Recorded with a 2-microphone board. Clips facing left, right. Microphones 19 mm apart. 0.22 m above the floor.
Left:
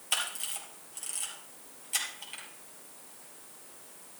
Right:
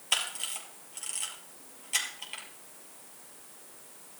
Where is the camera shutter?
10° right (ahead or behind), 3 m.